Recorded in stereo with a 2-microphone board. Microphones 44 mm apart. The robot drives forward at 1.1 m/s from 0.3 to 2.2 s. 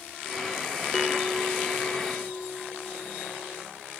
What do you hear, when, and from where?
0.9 s a bell: centre (ahead or behind)